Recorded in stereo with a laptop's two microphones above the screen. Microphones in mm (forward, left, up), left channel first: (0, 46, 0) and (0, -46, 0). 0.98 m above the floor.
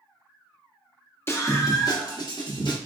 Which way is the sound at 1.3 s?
30° left (ahead or behind).